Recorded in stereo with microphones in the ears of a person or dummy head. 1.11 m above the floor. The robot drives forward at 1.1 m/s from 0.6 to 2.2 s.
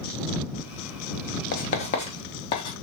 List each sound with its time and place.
1.5 s writing: 45° left (ahead or behind), 0.8 m; by 2.7 s 25° left (ahead or behind), 1.1 m